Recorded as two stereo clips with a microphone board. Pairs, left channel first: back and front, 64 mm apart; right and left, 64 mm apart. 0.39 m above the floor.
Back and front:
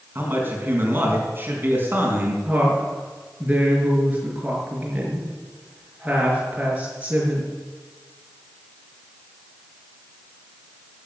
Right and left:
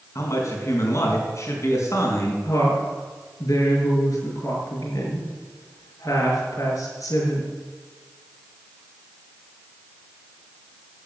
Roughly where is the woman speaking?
Ahead right.